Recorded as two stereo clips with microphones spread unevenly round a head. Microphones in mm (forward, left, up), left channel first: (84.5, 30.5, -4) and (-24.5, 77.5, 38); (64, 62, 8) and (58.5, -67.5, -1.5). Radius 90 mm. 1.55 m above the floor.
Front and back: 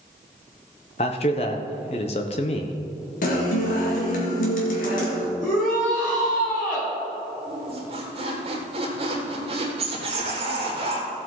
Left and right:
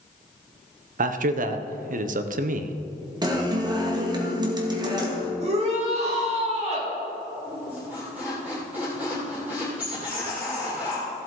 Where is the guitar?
35° right, 2 m.